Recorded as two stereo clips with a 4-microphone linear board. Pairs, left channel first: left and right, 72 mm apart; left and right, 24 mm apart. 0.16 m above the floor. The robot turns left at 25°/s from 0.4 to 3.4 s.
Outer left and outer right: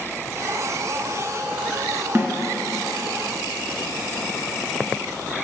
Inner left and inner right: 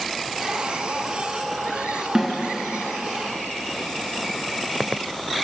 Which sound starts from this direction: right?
A snare drum, at 2.1 s.